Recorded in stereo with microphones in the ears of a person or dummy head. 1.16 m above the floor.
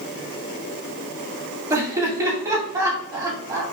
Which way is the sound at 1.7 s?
15° right (ahead or behind).